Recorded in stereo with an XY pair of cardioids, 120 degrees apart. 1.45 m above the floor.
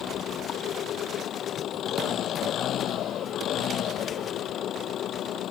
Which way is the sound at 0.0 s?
60° left.